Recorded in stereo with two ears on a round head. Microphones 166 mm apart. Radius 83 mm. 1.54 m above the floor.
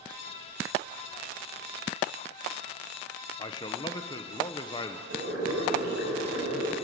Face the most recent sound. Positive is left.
turn(degrees=-65)  # may be behind; listen again after turning